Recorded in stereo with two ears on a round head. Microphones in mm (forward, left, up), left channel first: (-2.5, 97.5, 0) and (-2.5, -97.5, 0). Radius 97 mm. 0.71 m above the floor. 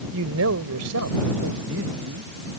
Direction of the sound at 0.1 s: 65° right (ahead or behind).